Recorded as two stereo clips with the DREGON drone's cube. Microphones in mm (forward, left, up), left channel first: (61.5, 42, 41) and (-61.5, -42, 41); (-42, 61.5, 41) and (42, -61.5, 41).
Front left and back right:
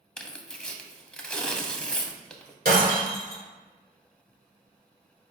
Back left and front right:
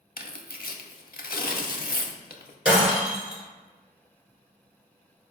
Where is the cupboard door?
No cupboard door in this recording.